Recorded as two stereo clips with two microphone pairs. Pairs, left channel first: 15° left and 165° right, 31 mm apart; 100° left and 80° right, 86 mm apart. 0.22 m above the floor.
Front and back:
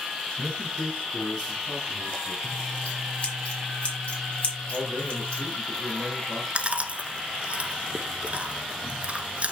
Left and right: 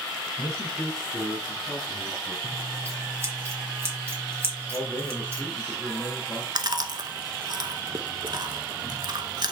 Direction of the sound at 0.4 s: 15° left.